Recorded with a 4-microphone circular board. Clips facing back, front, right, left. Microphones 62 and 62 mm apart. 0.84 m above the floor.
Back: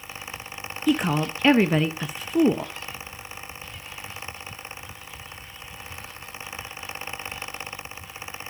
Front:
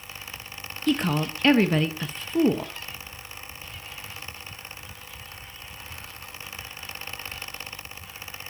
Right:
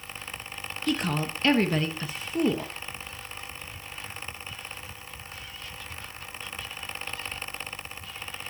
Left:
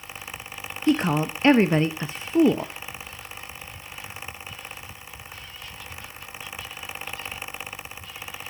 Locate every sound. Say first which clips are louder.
0.9 s a woman speaking: back 2 dB, left 7 dB; 110° left, 0.7 m